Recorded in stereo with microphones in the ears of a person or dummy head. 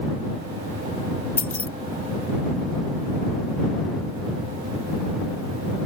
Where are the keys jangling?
5° left (ahead or behind).